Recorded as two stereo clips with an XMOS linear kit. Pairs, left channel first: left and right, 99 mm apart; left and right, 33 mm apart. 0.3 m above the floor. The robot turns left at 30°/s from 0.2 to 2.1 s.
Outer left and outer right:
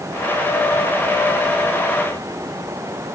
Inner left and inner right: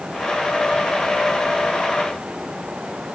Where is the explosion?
No explosion in this recording.